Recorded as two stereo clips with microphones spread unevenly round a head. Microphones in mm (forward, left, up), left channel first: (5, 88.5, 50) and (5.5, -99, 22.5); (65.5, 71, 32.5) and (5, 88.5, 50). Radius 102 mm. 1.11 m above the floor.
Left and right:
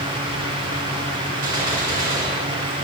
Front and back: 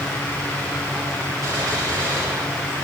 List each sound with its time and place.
1.4 s a gunshot: 140° right, 6 m